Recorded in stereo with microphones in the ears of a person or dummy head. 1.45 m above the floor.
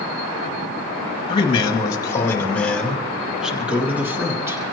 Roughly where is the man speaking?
Left.